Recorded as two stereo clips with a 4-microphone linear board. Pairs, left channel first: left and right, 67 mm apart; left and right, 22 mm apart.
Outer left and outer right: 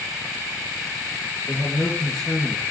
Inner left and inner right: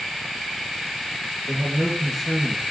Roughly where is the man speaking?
Centre.